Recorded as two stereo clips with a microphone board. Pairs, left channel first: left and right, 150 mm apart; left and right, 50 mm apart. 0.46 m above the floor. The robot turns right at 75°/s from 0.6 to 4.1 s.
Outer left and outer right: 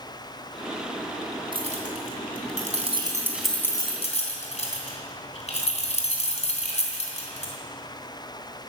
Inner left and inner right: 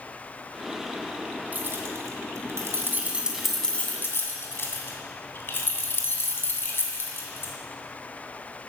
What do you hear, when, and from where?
1.5 s keys jangling: 35° right (ahead or behind), 2.5 m; by 7.5 s 50° left (ahead or behind), 2.5 m